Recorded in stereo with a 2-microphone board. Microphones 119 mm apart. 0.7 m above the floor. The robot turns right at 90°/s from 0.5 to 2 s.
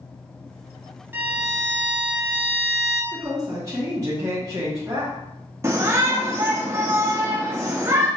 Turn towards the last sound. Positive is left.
turn(degrees=-25)  # may be behind; listen again after turning